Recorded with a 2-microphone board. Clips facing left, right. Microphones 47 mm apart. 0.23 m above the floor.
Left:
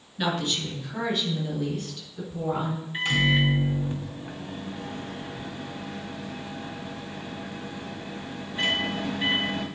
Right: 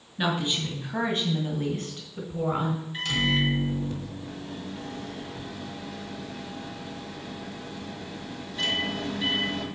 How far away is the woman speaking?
About 1.7 m.